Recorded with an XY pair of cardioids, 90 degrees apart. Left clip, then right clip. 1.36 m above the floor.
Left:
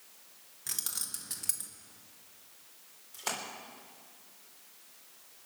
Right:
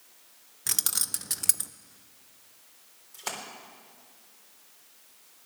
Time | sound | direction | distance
0.7 | keys jangling | 65° right | 0.7 m
3.1 | a splash | 10° right | 3.5 m